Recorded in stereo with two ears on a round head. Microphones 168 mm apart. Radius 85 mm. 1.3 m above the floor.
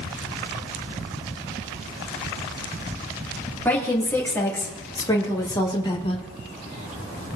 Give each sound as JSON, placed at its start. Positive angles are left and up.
{"t": 3.6, "sound": "a woman speaking", "side_deg": 10, "distance_m": 2.5}